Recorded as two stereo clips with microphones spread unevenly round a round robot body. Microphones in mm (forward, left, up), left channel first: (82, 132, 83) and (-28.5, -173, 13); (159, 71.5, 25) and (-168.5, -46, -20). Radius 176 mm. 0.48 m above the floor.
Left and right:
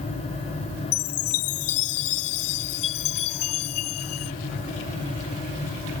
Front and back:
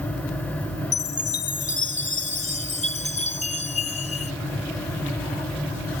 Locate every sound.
0.9 s a chime: 90° left